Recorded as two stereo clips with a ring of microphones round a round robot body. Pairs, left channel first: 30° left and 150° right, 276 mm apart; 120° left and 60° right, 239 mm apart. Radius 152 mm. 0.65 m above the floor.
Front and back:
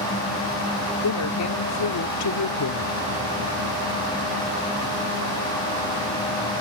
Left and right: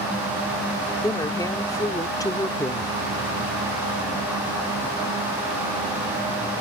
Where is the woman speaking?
45° left.